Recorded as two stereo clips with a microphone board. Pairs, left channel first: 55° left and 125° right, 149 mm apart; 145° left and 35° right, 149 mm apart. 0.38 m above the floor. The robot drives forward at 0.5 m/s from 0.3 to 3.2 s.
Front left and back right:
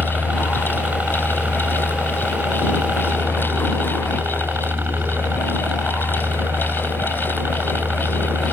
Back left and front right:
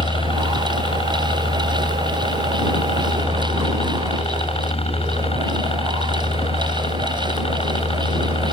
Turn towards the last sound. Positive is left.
turn(degrees=165)